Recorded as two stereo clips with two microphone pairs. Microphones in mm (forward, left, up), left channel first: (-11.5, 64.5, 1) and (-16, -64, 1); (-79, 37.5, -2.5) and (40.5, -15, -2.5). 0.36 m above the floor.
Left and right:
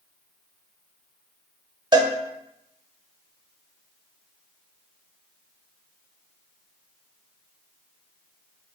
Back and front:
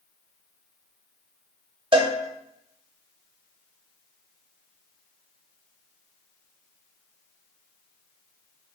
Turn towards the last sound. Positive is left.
turn(degrees=-55)